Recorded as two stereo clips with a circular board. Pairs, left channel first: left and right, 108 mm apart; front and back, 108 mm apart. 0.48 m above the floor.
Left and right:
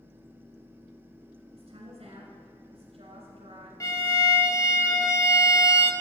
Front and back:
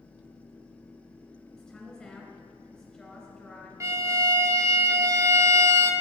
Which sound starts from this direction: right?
A woman speaking, at 1.5 s.